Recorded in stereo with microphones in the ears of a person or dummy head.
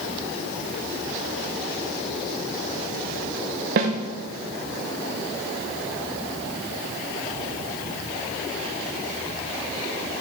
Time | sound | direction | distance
3.8 | a snare drum | 55° right (ahead or behind) | 0.9 m